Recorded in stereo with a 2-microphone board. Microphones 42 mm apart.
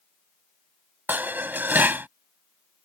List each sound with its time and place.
1.1 s dishes clattering: 50° right (ahead or behind)